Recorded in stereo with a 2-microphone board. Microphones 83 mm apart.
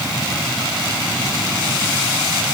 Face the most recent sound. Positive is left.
No sound to turn to.